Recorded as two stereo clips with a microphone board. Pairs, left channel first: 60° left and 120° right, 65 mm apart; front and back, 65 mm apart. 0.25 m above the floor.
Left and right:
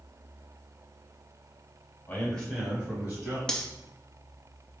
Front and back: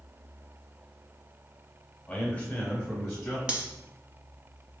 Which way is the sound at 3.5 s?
125° left.